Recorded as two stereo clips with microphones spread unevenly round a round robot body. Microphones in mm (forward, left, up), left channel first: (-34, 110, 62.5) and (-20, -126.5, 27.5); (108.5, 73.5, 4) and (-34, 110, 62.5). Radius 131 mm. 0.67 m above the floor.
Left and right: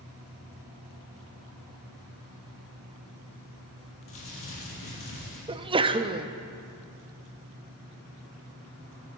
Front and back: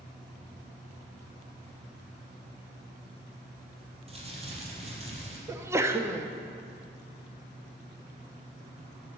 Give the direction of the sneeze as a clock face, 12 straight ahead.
3 o'clock.